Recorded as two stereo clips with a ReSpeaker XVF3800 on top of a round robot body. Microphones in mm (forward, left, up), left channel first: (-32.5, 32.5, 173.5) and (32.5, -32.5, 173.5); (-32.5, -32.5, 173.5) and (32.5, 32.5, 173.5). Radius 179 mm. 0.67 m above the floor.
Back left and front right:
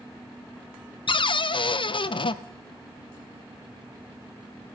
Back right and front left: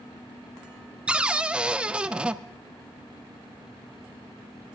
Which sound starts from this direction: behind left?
A cupboard door, at 1.1 s.